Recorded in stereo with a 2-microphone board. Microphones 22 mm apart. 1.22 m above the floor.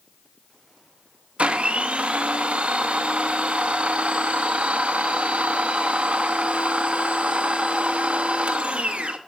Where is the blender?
75° right (ahead or behind), 1.1 m.